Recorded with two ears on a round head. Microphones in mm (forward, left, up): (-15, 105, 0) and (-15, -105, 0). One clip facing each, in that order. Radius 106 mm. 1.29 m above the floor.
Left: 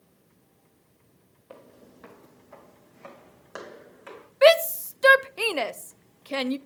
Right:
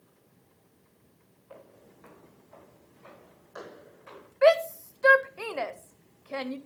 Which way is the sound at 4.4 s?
45° left (ahead or behind).